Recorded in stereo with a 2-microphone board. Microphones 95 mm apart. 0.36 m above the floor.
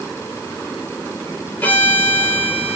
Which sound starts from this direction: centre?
A violin, at 1.6 s.